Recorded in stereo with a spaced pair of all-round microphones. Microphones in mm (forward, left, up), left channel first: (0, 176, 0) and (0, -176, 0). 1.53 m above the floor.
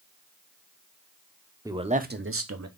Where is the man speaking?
10° right (ahead or behind), 0.6 m; by 2.7 s 55° right (ahead or behind), 0.7 m.